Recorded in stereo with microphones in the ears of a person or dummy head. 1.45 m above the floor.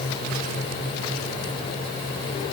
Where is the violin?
I don't hear a violin.